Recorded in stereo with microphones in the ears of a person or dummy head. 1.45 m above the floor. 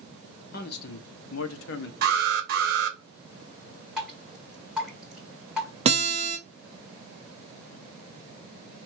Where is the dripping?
5° right (ahead or behind), 2.5 m.